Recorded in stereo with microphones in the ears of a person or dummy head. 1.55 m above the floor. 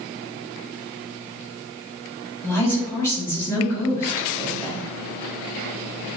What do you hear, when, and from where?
2.4 s a woman speaking: 15° left (ahead or behind), 1.4 m